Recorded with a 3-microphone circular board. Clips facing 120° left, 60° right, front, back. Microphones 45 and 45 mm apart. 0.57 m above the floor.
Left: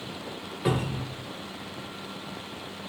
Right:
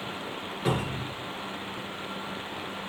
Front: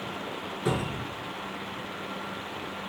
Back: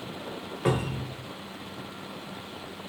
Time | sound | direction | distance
0.7 | a cupboard door | 160° right | 0.9 m